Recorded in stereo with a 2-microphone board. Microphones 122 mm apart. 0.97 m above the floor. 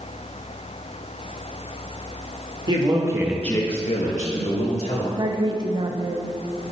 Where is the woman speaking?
40° right (ahead or behind), 0.8 m.